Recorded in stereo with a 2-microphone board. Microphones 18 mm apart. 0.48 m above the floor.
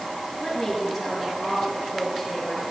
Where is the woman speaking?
Centre (ahead or behind), 6.5 m.